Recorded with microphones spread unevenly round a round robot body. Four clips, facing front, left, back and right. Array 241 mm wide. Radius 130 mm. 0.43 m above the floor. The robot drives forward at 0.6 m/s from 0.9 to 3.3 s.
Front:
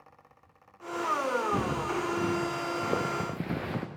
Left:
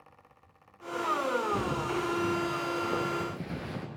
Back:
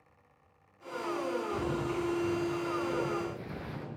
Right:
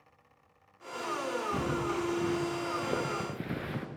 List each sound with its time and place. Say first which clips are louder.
1.5 s footsteps: left 1 dB, front 3 dB; 15° right, 5 m